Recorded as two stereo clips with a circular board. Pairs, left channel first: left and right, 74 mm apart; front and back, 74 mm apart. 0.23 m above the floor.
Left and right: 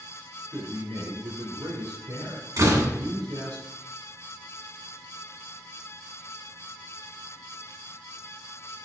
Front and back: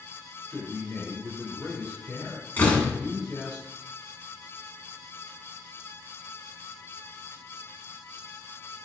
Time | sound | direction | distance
0.5 | a man speaking | 80° right | 3.5 m
2.6 | a door slam | 60° right | 1.6 m